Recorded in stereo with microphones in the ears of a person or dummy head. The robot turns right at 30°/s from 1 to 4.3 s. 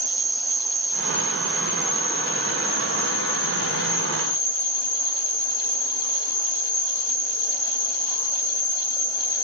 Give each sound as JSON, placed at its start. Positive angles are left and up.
{"t": 0.0, "sound": "an insect", "azimuth_deg": -30, "distance_m": 3.0}